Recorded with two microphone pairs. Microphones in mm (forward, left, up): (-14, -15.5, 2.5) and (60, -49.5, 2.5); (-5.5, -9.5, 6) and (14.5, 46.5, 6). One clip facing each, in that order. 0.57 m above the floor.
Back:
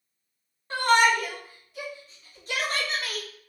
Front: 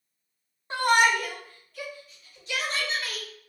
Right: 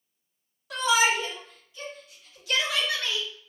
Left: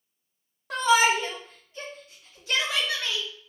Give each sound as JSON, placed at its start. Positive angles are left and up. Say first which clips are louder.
{"t": 0.7, "sound": "a shout", "louder": "back 1 dB, left 2 dB", "azimuth_deg": 40, "distance_m": 1.0}